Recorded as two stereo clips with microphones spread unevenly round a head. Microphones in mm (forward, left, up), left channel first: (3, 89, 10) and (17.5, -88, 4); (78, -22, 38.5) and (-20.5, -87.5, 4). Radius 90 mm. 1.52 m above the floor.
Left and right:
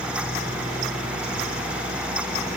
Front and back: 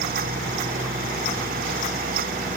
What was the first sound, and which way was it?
Only background noise.